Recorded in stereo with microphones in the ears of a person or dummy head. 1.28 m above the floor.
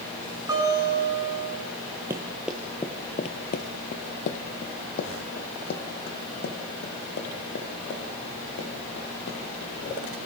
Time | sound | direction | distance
0.5 | a guitar | 20° right (ahead or behind) | 6 m
2.1 | running footsteps | 15° right (ahead or behind) | 1.5 m